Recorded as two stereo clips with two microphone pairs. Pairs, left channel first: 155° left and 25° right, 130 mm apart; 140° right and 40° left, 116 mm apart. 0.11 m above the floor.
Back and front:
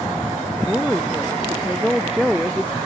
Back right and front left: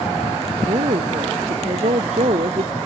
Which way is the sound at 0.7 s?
60° left.